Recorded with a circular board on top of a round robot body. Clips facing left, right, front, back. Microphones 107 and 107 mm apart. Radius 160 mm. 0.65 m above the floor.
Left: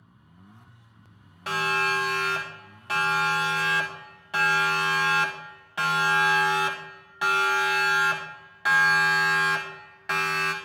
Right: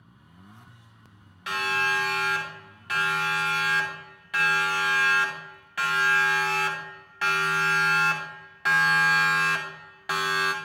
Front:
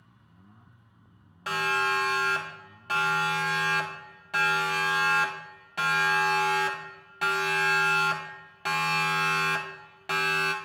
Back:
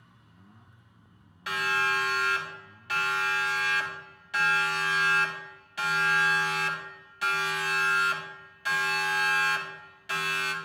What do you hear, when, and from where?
1.5 s a siren: 45° left, 6.5 m; by 10.6 s 10° right, 3.5 m